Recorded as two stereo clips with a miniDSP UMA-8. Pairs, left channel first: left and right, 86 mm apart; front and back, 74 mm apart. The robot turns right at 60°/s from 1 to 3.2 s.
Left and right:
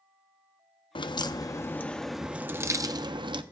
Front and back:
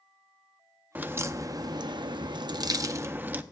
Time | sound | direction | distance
0.9 | a crack | 115° left | 0.5 m